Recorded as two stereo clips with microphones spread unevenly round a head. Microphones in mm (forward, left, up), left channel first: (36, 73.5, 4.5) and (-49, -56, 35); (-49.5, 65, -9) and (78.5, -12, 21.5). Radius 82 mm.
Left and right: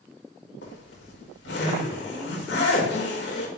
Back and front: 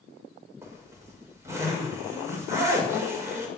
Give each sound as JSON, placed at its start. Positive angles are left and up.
{"t": 0.6, "sound": "a zipper", "azimuth_deg": 40, "distance_m": 6.0}